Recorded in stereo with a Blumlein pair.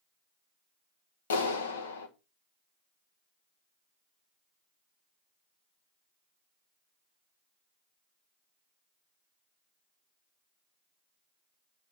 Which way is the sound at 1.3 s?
65° left.